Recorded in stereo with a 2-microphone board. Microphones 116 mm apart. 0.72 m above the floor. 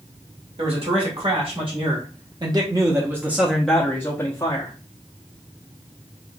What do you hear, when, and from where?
0.6 s a man speaking: 60° right (ahead or behind), 1.8 m; by 4.7 s 40° left (ahead or behind), 0.9 m